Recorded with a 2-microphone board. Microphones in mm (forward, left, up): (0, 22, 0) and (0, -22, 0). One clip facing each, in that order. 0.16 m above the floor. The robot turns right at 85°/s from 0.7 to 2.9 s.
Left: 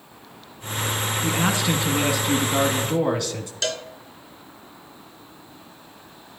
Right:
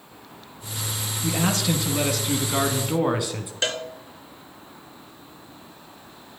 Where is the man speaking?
25° left (ahead or behind), 1.1 m; by 3.5 s 15° right (ahead or behind), 1.1 m.